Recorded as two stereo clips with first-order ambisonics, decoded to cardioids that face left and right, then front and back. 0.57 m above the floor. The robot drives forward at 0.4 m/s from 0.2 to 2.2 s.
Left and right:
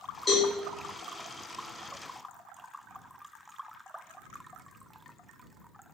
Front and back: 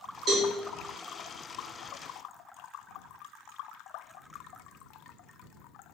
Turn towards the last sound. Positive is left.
turn(degrees=165)